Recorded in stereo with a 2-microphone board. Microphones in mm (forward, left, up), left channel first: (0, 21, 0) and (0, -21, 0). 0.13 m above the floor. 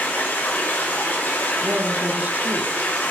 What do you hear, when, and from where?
0.0 s running water: 45° left (ahead or behind), 5.5 m
1.6 s a woman speaking: 45° right (ahead or behind), 1.5 m